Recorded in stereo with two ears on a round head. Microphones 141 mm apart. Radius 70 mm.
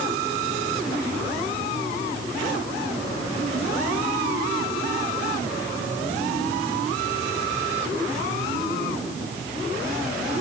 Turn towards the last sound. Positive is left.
No sound to turn to.